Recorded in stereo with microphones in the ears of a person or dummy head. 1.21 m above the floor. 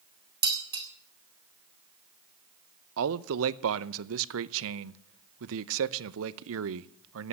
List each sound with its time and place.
0.4 s dishes clattering: 25° right (ahead or behind), 1.8 m
3.0 s a man speaking: 75° right (ahead or behind), 0.6 m